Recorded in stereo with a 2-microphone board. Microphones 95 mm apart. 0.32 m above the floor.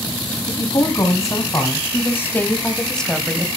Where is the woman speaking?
40° left (ahead or behind), 3.5 m; by 3.5 s 5° right (ahead or behind), 1.9 m.